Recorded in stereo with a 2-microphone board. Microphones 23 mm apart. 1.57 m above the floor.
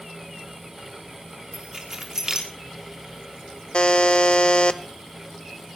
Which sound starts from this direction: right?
Keys jangling, at 1.5 s.